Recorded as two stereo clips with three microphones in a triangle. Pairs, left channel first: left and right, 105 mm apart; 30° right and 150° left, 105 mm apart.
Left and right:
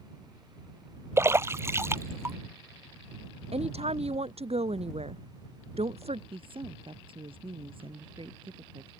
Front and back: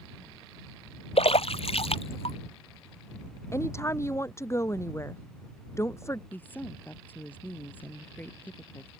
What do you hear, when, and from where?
1.2 s a splash: 25° right
3.5 s a woman speaking: 95° right
6.3 s a woman speaking: 100° right